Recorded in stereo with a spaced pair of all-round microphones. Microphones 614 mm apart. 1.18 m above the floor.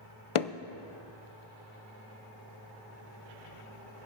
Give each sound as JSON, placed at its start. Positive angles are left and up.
{"t": 0.3, "sound": "hammering", "side_deg": 55, "distance_m": 0.6}